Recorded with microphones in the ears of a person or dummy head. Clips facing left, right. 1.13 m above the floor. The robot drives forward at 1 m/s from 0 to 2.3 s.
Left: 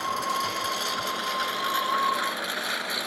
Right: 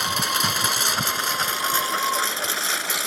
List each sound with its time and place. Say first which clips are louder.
0.0 s a lawn mower: right 2 dB; 80° right; by 3.1 s 55° right (ahead or behind)